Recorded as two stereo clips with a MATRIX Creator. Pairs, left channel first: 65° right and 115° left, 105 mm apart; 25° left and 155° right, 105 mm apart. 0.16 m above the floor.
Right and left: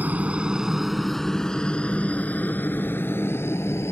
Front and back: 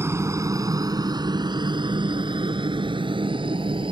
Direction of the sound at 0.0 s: 170° left.